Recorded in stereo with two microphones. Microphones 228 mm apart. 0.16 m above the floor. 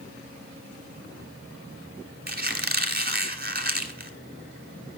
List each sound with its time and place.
2.3 s a squeak: 40° right (ahead or behind), 1.1 m